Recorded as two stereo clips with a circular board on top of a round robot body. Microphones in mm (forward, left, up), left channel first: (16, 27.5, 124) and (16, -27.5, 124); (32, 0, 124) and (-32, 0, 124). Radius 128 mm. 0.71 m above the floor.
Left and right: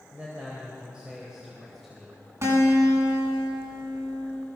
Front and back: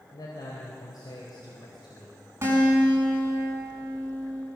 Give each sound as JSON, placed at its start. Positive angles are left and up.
{"t": 0.1, "sound": "a man speaking", "azimuth_deg": -25, "distance_m": 4.0}
{"t": 2.4, "sound": "a guitar", "azimuth_deg": -125, "distance_m": 6.0}